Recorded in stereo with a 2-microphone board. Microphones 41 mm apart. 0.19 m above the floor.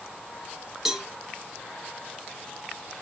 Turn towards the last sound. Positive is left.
turn(degrees=-5)  # may be behind; listen again after turning